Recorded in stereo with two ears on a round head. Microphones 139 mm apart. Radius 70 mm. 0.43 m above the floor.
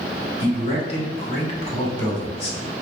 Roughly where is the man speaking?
Left.